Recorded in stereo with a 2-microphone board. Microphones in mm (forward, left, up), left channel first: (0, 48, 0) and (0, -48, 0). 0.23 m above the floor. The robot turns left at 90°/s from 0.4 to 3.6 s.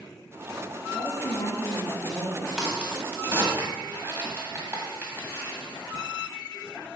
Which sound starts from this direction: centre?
A crack, at 2.6 s.